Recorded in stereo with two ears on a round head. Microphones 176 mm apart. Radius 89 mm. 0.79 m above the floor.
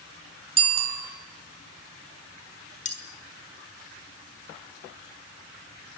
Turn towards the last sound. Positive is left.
turn(degrees=35)  # may be behind; listen again after turning